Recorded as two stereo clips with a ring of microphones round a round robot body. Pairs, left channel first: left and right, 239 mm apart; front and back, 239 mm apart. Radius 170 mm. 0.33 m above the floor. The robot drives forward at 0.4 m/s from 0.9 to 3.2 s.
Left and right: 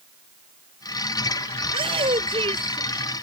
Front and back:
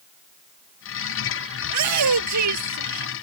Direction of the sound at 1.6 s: 165° right.